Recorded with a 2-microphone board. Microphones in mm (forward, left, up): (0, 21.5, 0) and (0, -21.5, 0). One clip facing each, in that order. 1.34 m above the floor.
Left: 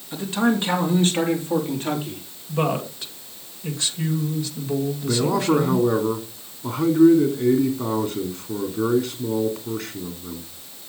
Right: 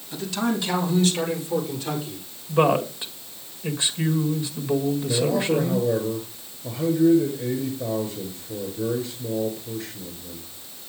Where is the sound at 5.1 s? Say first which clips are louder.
Left 5 dB; 85° left, 3 m.